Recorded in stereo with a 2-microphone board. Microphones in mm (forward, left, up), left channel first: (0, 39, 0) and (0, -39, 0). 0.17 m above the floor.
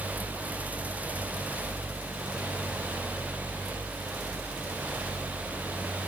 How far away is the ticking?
No ticking in this recording.